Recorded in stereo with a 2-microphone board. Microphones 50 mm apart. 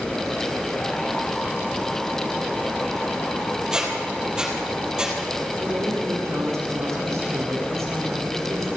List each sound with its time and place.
3.7 s a squeak: 15° right (ahead or behind), 3.5 m
5.6 s a woman speaking: 80° right, 7.5 m